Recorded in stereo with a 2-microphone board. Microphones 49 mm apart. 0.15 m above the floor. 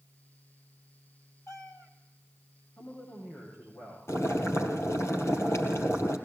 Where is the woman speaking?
80° left, 8.5 m.